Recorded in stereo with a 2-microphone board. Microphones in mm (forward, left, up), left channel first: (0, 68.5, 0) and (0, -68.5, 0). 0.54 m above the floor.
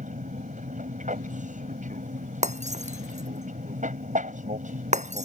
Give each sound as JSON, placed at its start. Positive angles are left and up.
{"t": 0.0, "sound": "an aircraft", "side_deg": -65}
{"t": 2.4, "sound": "breaking glass", "side_deg": -60}